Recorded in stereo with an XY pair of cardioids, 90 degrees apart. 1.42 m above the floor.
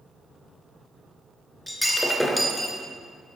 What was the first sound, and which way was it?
Breaking glass, 10° left.